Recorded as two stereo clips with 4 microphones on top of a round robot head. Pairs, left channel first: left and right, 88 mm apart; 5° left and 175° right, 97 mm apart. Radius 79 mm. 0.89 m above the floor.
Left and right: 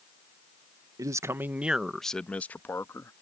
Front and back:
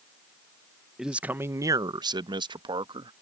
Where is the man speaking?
90° right; by 3.1 s 150° left.